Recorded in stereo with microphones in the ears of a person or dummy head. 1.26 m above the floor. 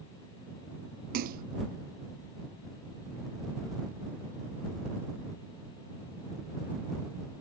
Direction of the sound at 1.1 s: 45° right (ahead or behind).